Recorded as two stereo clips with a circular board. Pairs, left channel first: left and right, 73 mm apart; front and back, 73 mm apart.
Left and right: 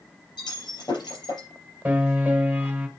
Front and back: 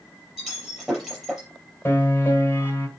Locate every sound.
0.4 s breaking glass: 100° left, 5 m
1.9 s a piano: 35° right, 1.6 m